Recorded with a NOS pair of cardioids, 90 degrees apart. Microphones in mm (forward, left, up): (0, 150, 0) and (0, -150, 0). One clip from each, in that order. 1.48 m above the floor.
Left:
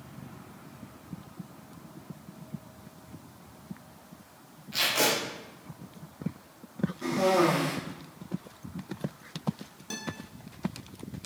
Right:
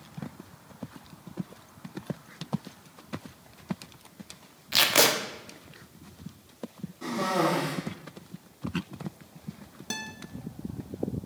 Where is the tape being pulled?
60° right, 0.8 m.